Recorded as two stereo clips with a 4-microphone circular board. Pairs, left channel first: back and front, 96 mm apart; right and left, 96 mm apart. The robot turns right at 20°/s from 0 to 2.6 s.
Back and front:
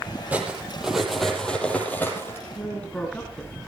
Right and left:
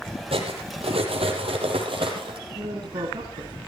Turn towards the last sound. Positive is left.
turn(degrees=105)